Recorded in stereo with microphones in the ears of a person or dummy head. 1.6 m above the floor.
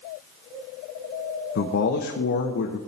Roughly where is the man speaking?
Left.